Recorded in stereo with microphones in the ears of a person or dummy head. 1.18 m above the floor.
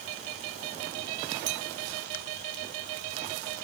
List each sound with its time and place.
1.5 s a clink: 45° right (ahead or behind), 1.0 m